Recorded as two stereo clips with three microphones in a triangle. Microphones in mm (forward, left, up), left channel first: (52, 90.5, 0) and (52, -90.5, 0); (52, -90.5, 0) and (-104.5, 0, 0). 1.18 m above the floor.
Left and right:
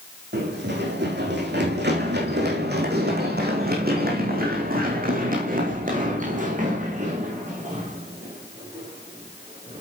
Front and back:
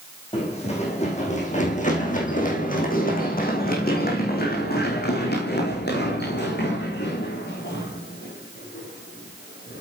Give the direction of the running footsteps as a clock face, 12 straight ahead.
3 o'clock.